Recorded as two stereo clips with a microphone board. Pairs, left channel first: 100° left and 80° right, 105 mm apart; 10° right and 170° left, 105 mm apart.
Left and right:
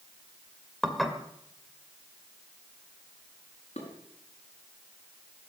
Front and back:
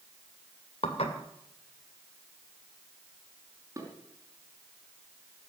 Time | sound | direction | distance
0.8 | dishes clattering | 10° left | 2 m
3.8 | dishes clattering | 110° left | 5.5 m